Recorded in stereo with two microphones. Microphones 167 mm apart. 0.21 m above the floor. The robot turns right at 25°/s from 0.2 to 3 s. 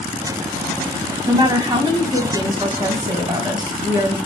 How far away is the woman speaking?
About 1.5 m.